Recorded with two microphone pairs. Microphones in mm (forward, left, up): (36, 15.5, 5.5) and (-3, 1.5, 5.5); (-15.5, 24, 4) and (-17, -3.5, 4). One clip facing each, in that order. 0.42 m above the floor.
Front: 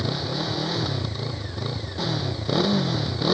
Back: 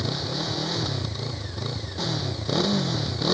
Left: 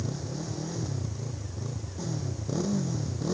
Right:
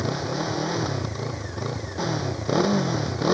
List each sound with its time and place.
0.0 s a motorcycle: 65° right